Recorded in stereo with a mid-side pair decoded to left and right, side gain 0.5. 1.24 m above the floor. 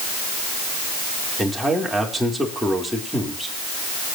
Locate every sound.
1.4 s a man speaking: 5° right, 4.5 m